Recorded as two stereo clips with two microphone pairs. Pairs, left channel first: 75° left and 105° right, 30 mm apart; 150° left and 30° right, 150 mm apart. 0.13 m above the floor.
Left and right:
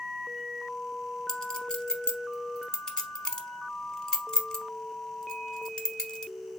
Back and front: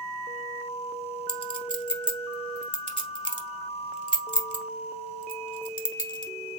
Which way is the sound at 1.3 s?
120° left.